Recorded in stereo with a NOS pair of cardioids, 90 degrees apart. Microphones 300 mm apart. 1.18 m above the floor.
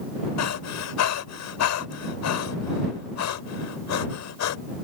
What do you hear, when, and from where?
0.4 s breathing: 65° left